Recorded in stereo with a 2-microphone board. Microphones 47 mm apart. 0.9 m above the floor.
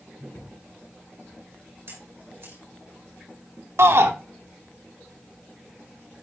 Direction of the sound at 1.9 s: 60° right (ahead or behind).